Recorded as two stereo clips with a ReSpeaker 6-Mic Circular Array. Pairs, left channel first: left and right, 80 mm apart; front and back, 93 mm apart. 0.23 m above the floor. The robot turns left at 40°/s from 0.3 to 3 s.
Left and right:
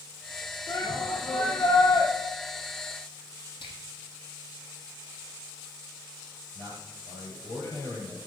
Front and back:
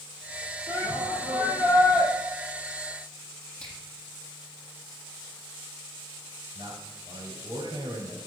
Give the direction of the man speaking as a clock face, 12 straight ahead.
7 o'clock.